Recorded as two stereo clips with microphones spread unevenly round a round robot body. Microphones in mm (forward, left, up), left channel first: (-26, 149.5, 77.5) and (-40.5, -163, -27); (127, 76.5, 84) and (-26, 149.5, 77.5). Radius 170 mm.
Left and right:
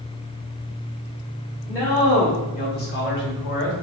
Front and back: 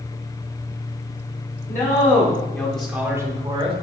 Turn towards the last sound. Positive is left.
turn(degrees=140)